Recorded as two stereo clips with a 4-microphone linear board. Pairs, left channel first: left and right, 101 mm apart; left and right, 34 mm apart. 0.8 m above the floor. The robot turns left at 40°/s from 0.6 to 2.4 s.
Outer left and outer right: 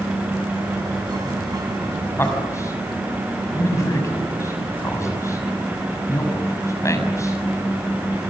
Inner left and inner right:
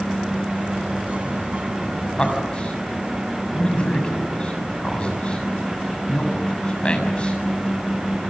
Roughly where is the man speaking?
Left.